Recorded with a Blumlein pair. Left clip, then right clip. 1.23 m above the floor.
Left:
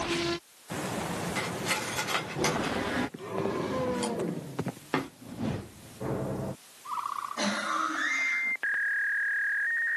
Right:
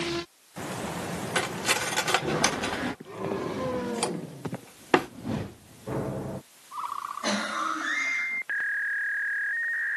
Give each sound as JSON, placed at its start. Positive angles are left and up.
{"t": 1.4, "sound": "cutlery clinking", "azimuth_deg": -25, "distance_m": 1.1}